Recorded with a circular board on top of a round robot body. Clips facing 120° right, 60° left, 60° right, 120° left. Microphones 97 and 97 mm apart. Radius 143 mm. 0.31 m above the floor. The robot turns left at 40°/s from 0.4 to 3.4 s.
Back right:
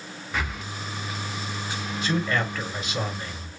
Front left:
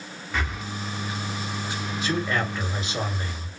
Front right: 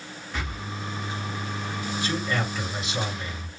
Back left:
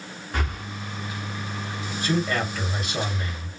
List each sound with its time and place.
0.3 s breathing: 155° left, 0.9 m; by 0.6 s 145° left, 0.9 m
2.0 s a man speaking: 150° left, 1.9 m; by 3.5 s 95° left, 1.9 m